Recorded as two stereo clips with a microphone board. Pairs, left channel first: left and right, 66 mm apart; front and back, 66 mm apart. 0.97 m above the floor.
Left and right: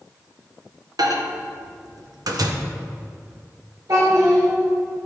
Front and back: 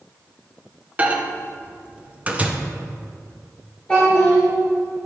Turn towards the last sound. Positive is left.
turn(degrees=-70)